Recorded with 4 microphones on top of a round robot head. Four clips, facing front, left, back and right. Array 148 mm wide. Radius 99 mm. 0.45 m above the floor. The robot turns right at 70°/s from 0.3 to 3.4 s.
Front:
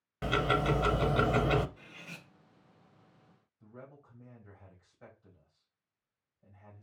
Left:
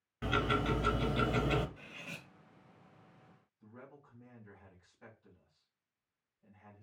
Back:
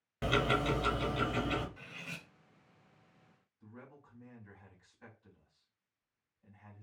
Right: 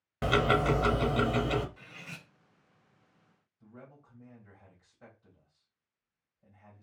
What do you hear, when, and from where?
0.2 s ticking: 95° right, 0.6 m; by 1.7 s straight ahead, 0.6 m
1.8 s cutlery clinking: 140° right, 3 m; by 2.3 s 105° right, 3 m
3.6 s a man speaking: 30° right, 3 m